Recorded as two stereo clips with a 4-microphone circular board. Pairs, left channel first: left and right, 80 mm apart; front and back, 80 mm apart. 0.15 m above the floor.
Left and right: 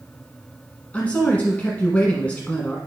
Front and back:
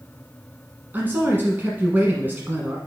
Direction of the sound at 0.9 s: 145° left.